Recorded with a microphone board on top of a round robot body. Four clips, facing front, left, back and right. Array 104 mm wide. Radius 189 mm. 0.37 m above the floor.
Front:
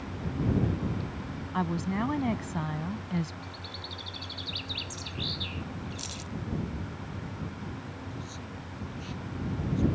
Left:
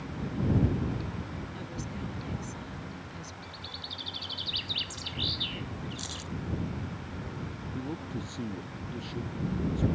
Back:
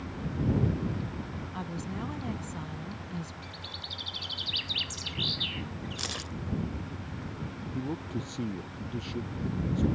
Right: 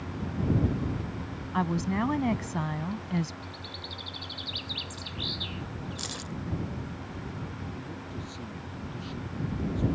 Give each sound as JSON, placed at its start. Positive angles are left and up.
{"t": 1.5, "sound": "a woman speaking", "azimuth_deg": -60}
{"t": 3.4, "sound": "a bird", "azimuth_deg": 155}
{"t": 6.0, "sound": "keys jangling", "azimuth_deg": -165}
{"t": 7.7, "sound": "a man speaking", "azimuth_deg": 155}